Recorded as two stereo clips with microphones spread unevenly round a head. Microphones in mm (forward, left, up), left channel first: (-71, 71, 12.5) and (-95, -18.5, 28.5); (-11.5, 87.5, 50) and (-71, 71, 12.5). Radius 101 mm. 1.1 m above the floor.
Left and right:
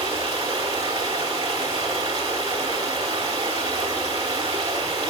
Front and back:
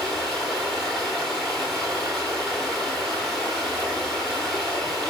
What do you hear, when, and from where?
0.0 s running water: 45° right, 1.0 m